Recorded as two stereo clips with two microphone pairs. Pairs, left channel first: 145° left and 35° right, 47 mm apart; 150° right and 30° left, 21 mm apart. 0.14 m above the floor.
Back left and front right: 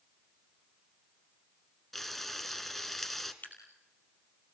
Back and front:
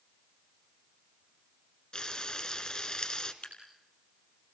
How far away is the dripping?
About 3.5 m.